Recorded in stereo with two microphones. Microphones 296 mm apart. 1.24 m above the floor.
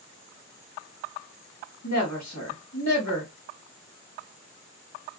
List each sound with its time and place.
1.8 s a woman speaking: 65° left (ahead or behind), 1.7 m